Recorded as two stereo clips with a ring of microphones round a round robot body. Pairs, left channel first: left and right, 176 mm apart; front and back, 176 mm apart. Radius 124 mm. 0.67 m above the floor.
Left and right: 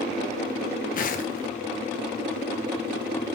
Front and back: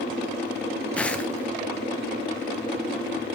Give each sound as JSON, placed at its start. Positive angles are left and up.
{"t": 0.9, "sound": "footsteps", "azimuth_deg": 80, "distance_m": 0.8}